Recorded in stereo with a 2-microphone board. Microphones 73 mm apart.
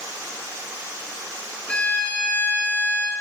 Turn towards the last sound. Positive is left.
turn(degrees=20)  # may be behind; listen again after turning